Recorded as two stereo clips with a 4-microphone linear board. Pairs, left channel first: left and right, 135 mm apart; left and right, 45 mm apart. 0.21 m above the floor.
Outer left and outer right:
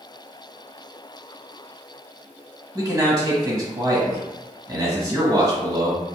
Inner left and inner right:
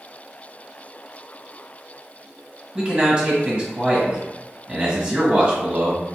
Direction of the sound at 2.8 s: 25° right (ahead or behind).